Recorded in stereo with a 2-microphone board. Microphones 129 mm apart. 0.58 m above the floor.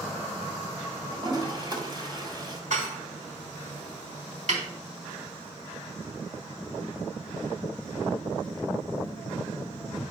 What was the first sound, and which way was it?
A toilet flushing, 40° right (ahead or behind).